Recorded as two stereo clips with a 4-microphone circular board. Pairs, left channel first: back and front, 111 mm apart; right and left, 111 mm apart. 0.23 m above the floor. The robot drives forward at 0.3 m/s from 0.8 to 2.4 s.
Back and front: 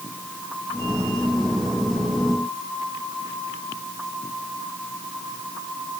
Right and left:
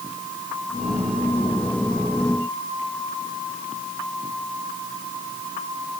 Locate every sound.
Only background noise.